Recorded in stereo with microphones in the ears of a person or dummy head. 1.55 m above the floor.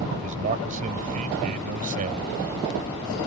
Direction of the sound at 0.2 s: 45° right (ahead or behind).